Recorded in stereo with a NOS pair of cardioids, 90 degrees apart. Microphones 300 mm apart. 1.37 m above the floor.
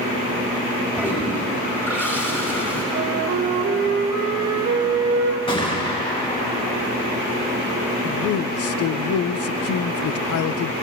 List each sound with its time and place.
1.0 s a toilet flushing: 5° left, 4.5 m
2.9 s a flute: 60° right, 1.6 m
5.5 s a gunshot: 15° left, 3 m
8.0 s a man speaking: 55° left, 0.6 m